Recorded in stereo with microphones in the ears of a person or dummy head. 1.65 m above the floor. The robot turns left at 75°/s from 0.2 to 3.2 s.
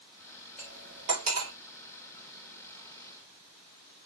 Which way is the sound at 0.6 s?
5° left (ahead or behind).